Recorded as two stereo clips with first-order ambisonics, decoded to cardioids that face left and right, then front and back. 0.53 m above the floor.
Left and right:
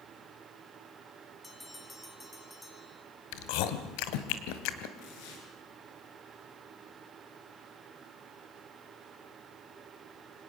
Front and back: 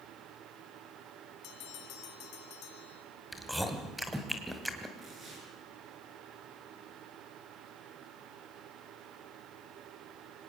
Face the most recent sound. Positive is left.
turn(degrees=110)